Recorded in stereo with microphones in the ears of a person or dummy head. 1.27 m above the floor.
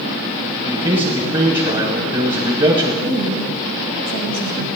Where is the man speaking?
30° right (ahead or behind), 3.5 m.